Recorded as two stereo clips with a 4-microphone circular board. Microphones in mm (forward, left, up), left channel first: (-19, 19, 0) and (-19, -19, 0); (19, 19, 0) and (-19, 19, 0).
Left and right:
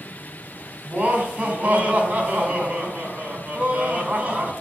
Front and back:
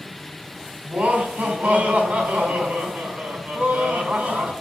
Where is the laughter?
145° right, 4 m.